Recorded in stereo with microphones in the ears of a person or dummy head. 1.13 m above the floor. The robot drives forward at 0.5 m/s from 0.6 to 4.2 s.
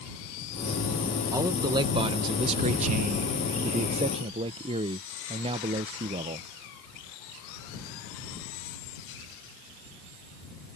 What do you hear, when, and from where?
1.3 s a man speaking: 20° right (ahead or behind); by 6.5 s 25° right (ahead or behind)